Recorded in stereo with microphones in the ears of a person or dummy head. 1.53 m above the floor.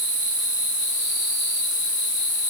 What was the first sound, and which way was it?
Only background noise.